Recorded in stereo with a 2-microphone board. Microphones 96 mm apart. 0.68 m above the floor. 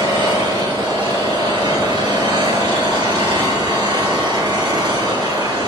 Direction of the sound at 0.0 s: 70° right (ahead or behind).